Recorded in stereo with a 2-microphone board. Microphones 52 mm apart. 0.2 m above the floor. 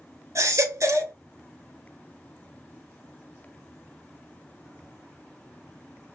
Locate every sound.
0.3 s a baby crying: 75° right (ahead or behind), 0.9 m